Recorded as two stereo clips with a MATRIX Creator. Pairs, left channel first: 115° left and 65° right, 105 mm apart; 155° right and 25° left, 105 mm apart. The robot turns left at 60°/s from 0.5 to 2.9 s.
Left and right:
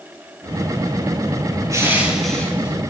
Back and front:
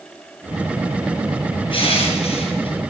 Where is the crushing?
130° right, 4 m; by 2.8 s 170° left, 4 m.